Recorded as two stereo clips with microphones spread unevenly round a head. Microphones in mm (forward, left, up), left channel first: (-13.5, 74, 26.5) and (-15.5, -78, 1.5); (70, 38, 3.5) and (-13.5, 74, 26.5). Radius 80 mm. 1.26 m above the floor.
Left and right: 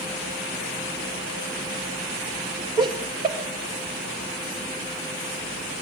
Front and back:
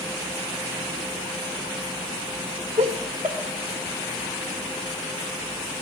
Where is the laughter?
155° right, 0.8 m.